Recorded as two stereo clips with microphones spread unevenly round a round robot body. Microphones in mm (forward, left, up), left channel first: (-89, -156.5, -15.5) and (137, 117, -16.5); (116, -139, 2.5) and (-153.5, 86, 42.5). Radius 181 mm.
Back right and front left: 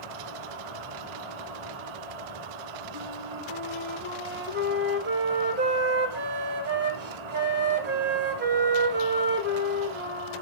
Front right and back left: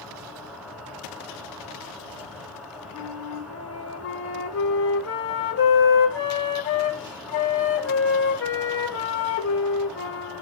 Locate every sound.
0.0 s an insect: 55° left, 1.1 m
2.9 s a flute: straight ahead, 2 m